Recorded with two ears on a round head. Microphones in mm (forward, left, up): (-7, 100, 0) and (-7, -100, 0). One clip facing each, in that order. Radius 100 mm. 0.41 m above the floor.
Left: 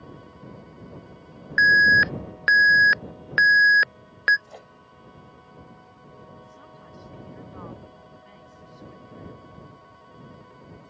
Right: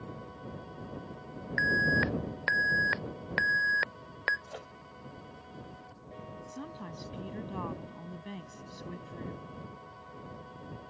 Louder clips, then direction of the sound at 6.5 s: Right 5 dB; 60° right (ahead or behind).